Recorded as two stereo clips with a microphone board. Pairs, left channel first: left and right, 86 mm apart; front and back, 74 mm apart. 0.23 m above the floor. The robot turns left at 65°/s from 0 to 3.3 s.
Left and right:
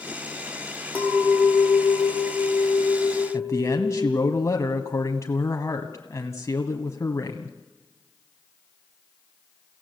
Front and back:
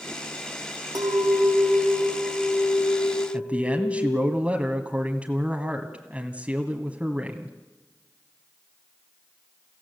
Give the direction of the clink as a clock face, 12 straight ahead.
7 o'clock.